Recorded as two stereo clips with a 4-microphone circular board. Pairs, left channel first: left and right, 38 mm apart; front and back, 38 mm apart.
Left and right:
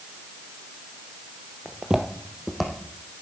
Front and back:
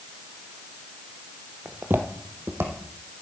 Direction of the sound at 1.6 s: 150° right.